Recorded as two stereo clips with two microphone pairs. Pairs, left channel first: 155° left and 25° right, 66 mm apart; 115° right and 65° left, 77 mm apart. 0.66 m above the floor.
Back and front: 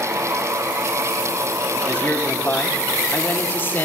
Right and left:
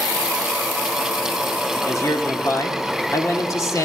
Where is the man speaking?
155° right, 2.0 m.